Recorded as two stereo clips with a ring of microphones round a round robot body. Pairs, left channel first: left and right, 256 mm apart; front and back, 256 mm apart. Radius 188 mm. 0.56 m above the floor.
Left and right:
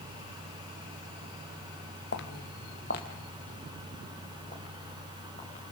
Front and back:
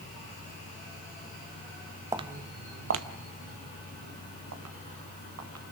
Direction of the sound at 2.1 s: 110° left.